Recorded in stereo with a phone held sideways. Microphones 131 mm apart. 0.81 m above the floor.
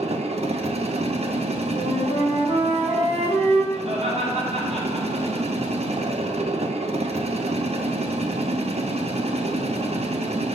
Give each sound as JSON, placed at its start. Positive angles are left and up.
{"t": 0.0, "sound": "a machine running", "side_deg": -55, "distance_m": 0.7}
{"t": 1.7, "sound": "a flute", "side_deg": -45, "distance_m": 3.0}
{"t": 3.7, "sound": "laughter", "side_deg": -55, "distance_m": 3.0}